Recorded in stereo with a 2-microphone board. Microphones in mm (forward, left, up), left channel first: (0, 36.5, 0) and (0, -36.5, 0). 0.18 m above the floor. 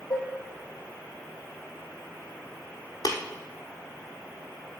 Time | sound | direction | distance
0.1 | dishes clattering | 55° left (ahead or behind) | 4 m
3.0 | tapping | 60° left (ahead or behind) | 1.3 m